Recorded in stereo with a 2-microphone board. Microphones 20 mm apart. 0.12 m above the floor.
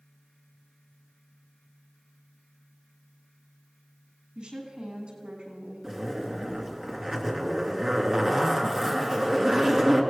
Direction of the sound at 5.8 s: 25° right (ahead or behind).